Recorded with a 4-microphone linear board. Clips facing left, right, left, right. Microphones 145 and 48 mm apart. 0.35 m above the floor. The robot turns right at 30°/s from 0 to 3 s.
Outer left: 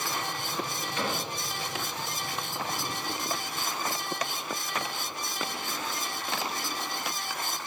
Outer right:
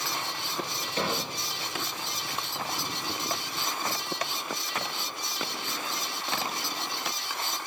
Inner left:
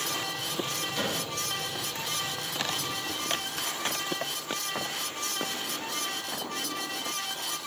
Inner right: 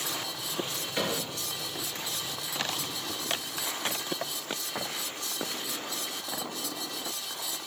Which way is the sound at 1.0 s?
35° right (ahead or behind).